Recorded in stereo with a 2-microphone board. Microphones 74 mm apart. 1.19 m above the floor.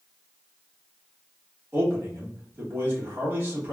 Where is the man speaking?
30° right (ahead or behind), 1.5 m.